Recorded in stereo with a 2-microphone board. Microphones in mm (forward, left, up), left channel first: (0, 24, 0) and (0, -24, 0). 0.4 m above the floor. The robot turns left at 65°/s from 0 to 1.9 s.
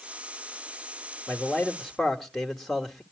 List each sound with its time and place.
1.3 s a man speaking: 50° left, 1.5 m; by 3.0 s 10° left, 1.5 m